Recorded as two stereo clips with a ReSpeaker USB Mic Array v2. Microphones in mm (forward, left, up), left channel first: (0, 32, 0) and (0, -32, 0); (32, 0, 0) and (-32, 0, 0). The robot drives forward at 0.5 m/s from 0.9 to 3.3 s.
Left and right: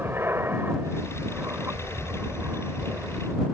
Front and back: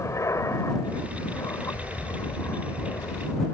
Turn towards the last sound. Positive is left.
turn(degrees=-40)